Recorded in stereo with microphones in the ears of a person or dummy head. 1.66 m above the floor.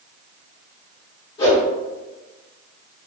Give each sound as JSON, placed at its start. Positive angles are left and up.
{"t": 1.4, "sound": "a whoosh", "side_deg": 25, "distance_m": 1.3}